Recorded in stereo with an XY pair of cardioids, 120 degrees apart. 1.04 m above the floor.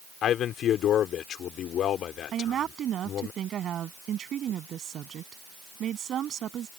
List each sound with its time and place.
0.2 s a man speaking: 60° left
2.3 s a woman speaking: 50° right